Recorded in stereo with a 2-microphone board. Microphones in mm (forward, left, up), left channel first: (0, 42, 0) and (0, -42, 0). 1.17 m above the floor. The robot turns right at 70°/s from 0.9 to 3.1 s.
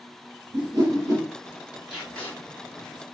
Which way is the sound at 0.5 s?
50° right (ahead or behind).